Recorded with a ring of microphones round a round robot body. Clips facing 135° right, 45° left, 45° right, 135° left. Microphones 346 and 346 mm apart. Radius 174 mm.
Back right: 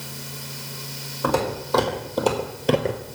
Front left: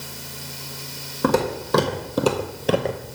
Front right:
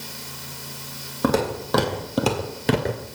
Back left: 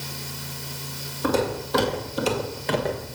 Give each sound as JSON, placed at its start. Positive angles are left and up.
{"t": 1.2, "sound": "footsteps", "azimuth_deg": -20, "distance_m": 1.7}